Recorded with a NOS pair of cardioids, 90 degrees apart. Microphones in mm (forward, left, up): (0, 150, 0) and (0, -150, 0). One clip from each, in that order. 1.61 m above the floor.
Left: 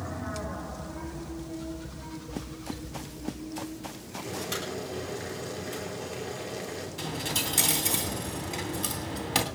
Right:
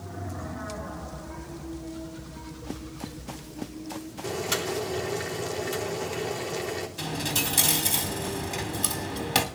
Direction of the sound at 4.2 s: 55° right.